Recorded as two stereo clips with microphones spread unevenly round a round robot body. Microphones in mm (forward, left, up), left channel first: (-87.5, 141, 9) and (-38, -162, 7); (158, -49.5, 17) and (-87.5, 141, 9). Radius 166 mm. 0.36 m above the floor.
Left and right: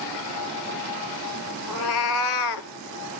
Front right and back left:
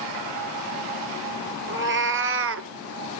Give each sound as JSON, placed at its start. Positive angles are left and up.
{"t": 1.7, "sound": "a cat meowing", "azimuth_deg": 85, "distance_m": 2.0}